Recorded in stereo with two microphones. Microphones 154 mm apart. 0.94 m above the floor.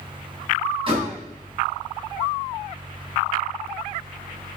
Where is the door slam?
35° right (ahead or behind), 5 m.